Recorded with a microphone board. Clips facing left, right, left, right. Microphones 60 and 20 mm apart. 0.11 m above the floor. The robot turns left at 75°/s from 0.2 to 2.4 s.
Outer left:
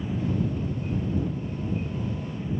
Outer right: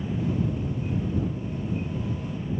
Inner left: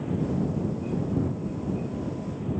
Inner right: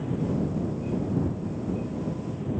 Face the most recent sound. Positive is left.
No sound to turn to.